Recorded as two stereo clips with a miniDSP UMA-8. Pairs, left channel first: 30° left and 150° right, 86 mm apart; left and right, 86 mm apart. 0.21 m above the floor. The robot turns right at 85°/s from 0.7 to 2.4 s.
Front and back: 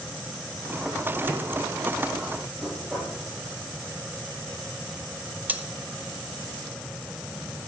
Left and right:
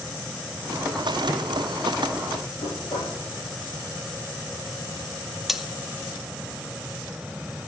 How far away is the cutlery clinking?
About 0.7 m.